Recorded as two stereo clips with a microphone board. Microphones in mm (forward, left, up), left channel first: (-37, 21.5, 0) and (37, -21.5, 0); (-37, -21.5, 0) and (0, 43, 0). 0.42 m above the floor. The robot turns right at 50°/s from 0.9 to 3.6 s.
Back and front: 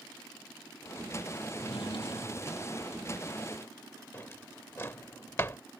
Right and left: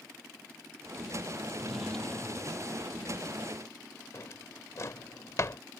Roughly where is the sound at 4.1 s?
Behind right.